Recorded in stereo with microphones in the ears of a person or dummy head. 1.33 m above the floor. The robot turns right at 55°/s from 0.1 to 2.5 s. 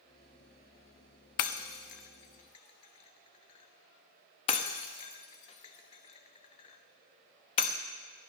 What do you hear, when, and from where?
1.4 s breaking glass: 45° left (ahead or behind), 0.7 m; by 7.8 s 30° left (ahead or behind), 0.7 m